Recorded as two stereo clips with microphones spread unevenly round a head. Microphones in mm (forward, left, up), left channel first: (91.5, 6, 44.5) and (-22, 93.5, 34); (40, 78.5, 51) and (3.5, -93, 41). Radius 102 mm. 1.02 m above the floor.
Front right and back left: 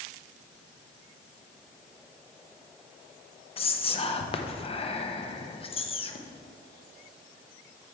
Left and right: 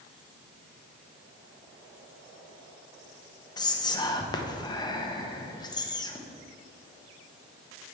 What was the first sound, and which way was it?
Whispering, 10° left.